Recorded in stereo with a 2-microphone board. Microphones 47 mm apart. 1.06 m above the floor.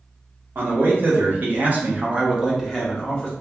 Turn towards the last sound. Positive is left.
turn(degrees=15)  # may be behind; listen again after turning